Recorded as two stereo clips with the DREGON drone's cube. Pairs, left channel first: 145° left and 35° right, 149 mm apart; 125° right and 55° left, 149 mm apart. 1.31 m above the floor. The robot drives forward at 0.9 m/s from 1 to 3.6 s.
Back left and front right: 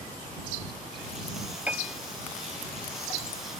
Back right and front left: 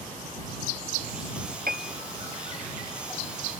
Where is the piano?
45° left.